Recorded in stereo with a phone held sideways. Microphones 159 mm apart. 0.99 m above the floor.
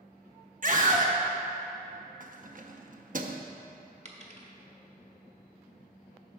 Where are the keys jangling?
55° right (ahead or behind), 0.5 m.